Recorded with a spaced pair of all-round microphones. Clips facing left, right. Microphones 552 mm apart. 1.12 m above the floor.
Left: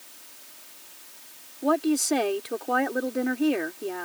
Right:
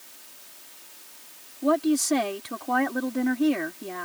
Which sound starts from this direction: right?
A woman speaking, at 1.6 s.